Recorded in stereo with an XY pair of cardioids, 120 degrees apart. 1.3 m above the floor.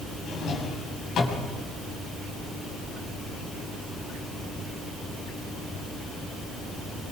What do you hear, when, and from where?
0.3 s a drawer: 60° left, 6 m